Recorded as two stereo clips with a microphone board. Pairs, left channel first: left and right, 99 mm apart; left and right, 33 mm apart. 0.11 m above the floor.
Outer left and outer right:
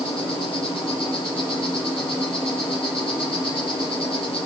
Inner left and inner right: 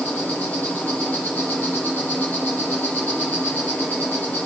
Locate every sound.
0.0 s an insect: 65° left (ahead or behind), 5.5 m